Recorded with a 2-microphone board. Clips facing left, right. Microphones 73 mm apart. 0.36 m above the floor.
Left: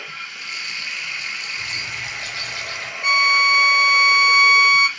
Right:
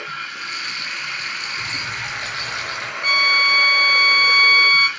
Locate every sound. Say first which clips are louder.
0.0 s running water: right 5 dB; 55° right (ahead or behind), 1.7 m
1.6 s a bird: right 3 dB; 40° right (ahead or behind), 2.5 m
3.0 s a violin: left 1 dB; 15° left (ahead or behind), 1.1 m